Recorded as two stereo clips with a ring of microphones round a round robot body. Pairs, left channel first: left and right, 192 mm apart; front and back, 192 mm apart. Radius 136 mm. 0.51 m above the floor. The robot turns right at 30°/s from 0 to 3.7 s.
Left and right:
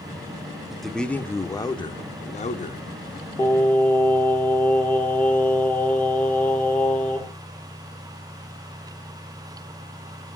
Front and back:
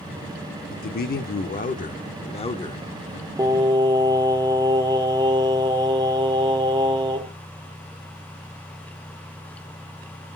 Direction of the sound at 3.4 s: 145° left.